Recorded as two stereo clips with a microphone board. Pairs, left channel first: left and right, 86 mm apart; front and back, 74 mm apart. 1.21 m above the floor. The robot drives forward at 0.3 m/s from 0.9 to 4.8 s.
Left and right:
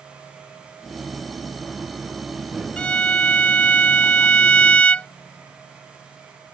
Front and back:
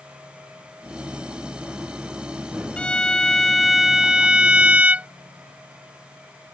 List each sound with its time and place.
2.8 s a violin: 50° left; by 5.1 s 140° left